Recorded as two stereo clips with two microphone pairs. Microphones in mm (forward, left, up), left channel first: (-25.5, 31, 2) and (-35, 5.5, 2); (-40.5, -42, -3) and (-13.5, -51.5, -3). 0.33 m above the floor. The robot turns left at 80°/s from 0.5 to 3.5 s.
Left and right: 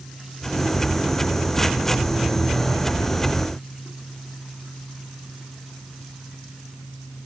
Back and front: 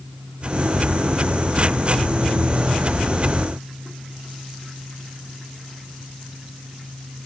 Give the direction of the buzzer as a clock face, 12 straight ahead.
I don't hear a buzzer.